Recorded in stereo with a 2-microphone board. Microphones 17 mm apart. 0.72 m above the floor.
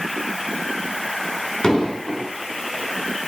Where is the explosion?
60° left (ahead or behind), 4.5 m.